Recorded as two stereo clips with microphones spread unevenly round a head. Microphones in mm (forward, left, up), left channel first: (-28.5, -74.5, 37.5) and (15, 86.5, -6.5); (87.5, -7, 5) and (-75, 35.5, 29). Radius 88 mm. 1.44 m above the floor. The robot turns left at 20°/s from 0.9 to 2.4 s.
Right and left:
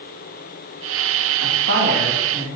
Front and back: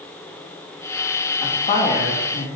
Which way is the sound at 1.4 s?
50° left.